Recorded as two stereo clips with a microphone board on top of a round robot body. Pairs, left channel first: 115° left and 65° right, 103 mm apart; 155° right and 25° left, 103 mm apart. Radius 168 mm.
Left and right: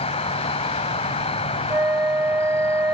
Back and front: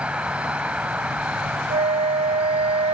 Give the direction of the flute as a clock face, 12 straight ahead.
12 o'clock.